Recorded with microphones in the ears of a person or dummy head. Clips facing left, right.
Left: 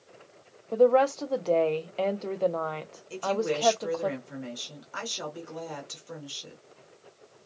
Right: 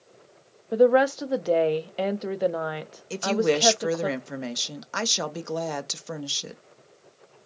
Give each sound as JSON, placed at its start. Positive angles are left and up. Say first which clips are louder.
{"t": 0.7, "sound": "a woman speaking", "louder": "right 2 dB", "side_deg": -15, "distance_m": 0.6}
{"t": 3.1, "sound": "a woman speaking", "louder": "right 5 dB", "side_deg": -65, "distance_m": 0.7}